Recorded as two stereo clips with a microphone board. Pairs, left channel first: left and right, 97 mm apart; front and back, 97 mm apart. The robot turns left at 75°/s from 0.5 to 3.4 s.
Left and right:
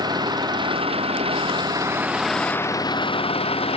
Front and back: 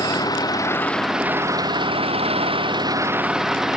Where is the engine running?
50° right; by 3.8 s 95° left.